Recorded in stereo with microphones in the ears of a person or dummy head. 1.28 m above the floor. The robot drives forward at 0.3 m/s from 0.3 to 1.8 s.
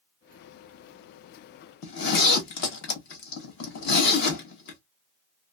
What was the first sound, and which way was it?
A zipper, 60° left (ahead or behind).